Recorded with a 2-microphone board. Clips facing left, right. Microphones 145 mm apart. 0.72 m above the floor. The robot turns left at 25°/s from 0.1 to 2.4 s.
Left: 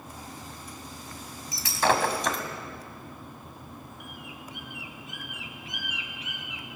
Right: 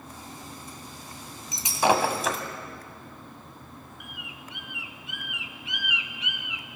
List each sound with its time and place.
1.5 s breaking glass: 25° right (ahead or behind), 1.7 m; by 2.4 s centre (ahead or behind), 1.7 m
4.0 s a bird: 45° left (ahead or behind), 1.3 m